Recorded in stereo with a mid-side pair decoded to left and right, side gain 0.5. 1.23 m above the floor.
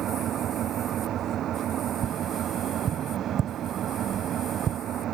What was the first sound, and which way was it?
An engine running, 60° right.